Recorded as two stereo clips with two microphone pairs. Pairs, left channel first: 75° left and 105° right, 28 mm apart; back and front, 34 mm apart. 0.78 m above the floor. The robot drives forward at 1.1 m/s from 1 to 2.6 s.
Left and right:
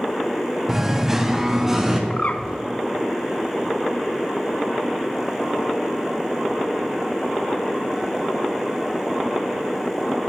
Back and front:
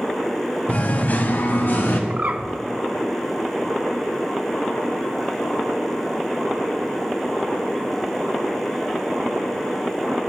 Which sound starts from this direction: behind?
Singing, at 0.7 s.